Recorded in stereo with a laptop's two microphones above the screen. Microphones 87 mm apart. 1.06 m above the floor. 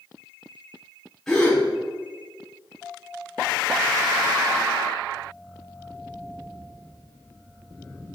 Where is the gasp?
5° left (ahead or behind), 3.5 m.